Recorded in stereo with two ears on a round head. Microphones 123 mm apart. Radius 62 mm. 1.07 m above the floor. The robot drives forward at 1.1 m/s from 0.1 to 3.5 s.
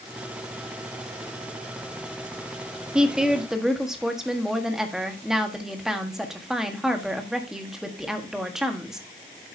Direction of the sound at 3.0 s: 5° right (ahead or behind).